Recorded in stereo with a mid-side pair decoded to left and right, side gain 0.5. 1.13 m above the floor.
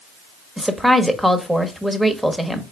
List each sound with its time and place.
0.6 s a woman speaking: 5° right, 1.1 m